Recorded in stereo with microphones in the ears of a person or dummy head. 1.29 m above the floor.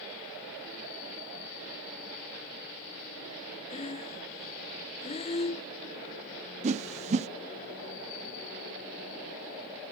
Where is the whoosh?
30° right (ahead or behind), 0.6 m.